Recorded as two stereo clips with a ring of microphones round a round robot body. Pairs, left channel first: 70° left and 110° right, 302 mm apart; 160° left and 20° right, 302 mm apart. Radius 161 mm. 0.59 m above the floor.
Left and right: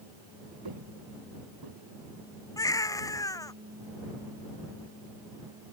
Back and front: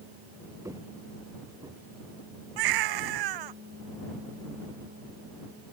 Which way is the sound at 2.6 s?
10° right.